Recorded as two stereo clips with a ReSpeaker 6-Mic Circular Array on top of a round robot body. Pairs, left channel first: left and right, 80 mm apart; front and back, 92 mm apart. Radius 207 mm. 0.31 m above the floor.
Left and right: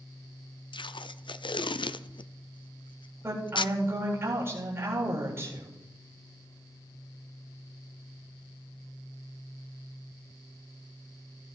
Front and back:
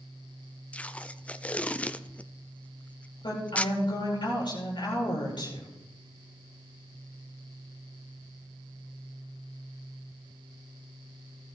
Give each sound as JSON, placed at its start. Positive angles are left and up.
{"t": 0.7, "sound": "tape being pulled", "azimuth_deg": 75, "distance_m": 0.6}
{"t": 3.2, "sound": "a woman speaking", "azimuth_deg": -30, "distance_m": 8.5}